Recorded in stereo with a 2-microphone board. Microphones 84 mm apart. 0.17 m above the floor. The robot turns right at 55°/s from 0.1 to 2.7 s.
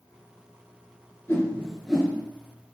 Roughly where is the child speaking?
No child speaking in this recording.